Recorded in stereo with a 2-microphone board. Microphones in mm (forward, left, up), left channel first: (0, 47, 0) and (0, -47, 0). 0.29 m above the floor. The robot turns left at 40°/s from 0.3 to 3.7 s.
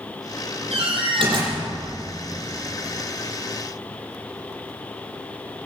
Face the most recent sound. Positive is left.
turn(degrees=140)